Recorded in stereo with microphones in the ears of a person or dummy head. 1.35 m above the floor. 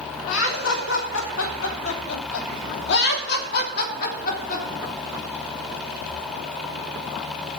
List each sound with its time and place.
0.3 s laughter: 80° left, 3 m; by 4.7 s 50° left (ahead or behind), 3 m